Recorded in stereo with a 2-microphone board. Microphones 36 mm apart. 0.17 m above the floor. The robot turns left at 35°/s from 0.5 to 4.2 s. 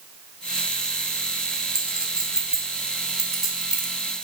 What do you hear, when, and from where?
1.8 s a clink: 20° right (ahead or behind), 0.9 m; by 3.9 s centre (ahead or behind), 0.9 m